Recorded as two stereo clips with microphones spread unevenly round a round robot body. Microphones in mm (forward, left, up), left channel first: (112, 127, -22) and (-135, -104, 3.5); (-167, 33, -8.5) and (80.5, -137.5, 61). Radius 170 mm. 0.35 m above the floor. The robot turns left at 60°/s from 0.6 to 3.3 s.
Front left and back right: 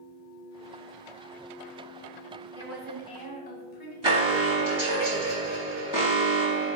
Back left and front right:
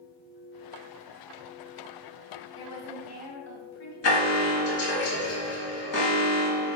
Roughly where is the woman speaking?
Behind left.